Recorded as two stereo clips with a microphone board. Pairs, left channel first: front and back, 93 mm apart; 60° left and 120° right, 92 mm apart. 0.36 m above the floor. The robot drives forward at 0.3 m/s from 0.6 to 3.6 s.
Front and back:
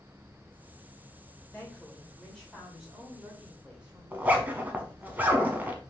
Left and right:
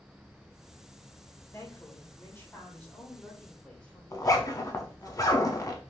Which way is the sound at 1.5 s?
60° left.